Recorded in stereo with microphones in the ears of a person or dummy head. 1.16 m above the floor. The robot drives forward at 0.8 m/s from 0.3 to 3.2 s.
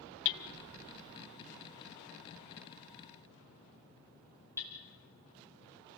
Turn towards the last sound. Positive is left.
turn(degrees=15)  # may be behind; listen again after turning